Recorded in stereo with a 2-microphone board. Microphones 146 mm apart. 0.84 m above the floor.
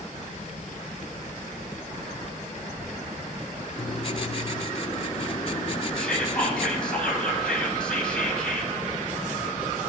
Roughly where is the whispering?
Centre.